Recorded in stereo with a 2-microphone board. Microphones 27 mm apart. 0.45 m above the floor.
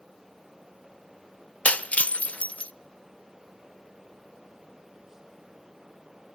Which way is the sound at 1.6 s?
55° left (ahead or behind).